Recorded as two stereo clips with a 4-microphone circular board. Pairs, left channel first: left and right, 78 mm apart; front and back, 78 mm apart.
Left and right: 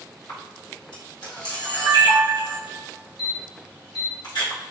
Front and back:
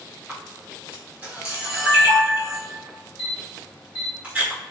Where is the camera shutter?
110° left, 1.7 m.